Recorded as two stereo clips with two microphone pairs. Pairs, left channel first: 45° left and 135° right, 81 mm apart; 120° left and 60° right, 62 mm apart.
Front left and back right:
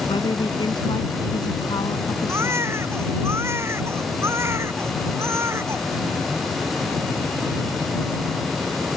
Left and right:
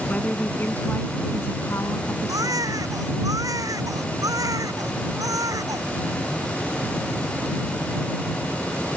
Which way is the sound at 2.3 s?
80° right.